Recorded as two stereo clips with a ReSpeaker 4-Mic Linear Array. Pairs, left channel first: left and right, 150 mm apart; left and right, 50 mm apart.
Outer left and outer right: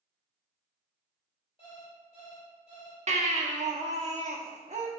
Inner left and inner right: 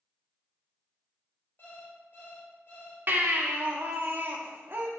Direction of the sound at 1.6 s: 40° left (ahead or behind).